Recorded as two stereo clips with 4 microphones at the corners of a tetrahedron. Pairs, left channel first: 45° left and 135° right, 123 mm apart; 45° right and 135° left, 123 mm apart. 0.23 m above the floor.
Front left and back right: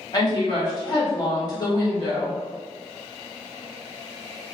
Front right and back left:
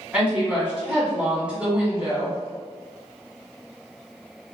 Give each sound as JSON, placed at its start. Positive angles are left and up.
{"t": 0.1, "sound": "a woman speaking", "azimuth_deg": 60, "distance_m": 1.3}